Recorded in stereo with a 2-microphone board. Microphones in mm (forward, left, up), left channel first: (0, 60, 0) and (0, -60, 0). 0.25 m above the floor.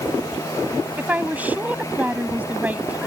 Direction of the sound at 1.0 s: 15° right (ahead or behind).